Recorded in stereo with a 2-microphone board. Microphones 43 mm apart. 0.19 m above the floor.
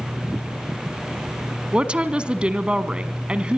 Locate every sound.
1.7 s a woman speaking: 25° right (ahead or behind), 1.5 m